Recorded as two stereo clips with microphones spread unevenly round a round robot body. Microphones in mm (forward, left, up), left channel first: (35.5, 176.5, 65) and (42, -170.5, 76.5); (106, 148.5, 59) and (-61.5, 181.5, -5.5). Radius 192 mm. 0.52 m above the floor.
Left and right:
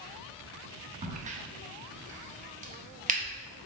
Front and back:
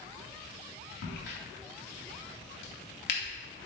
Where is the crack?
25° right, 0.7 m.